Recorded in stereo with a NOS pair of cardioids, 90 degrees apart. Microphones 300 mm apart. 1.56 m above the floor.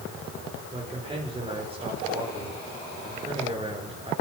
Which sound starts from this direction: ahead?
A man speaking, at 0.7 s.